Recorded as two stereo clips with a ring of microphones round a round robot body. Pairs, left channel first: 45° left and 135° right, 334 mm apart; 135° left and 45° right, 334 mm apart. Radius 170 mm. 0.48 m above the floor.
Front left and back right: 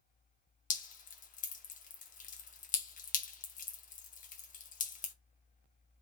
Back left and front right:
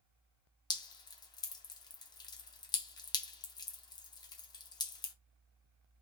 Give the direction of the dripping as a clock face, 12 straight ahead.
10 o'clock.